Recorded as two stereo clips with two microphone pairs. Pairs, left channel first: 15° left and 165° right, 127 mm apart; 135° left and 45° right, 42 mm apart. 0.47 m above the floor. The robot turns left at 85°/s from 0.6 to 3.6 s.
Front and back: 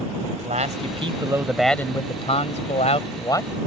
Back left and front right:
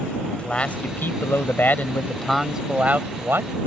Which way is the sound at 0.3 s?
170° right.